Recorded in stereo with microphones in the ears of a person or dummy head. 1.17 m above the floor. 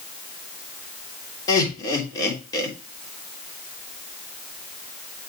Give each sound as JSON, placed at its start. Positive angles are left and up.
{"t": 1.5, "sound": "laughter", "side_deg": 25, "distance_m": 3.0}